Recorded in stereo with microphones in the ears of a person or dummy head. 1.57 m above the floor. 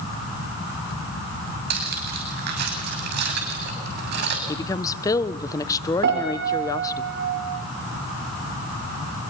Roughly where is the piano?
Right.